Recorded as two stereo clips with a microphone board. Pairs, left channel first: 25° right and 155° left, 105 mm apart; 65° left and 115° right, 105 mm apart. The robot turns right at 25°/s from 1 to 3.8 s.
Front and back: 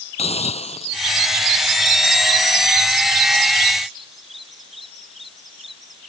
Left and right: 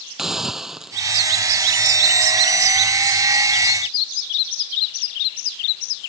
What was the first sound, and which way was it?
A hiss, 30° right.